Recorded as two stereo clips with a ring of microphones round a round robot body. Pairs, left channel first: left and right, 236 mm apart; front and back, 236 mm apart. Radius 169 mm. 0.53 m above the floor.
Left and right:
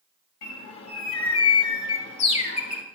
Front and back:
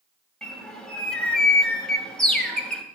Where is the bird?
85° left, 2 m.